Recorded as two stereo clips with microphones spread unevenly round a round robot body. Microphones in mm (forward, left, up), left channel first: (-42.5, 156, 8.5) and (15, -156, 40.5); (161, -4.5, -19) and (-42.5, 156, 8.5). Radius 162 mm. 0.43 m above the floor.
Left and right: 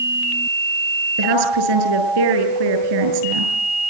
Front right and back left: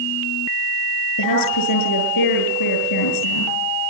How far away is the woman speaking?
About 7.5 m.